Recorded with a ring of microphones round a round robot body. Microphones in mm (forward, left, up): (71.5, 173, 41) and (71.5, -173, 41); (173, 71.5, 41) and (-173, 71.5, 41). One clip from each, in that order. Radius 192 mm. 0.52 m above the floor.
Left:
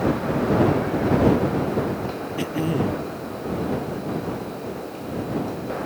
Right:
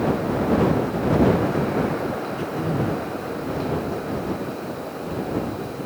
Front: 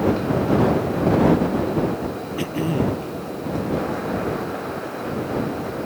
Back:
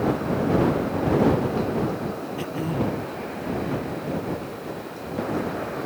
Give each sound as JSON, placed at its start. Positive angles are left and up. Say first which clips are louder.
{"t": 2.4, "sound": "throat clearing", "louder": "left 1 dB, front 5 dB", "azimuth_deg": 65}